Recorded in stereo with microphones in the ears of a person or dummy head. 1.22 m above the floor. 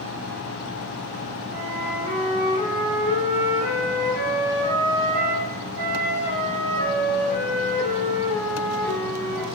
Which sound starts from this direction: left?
A flute, at 1.5 s.